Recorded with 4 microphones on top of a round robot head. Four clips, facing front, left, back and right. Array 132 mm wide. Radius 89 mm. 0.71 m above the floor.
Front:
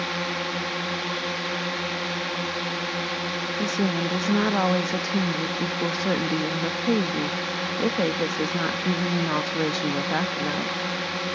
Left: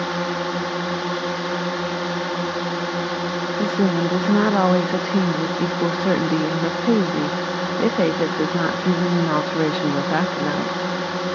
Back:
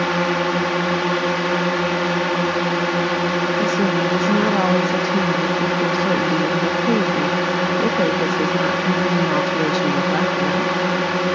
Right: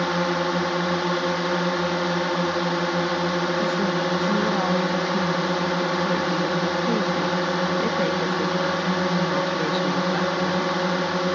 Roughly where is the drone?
Behind.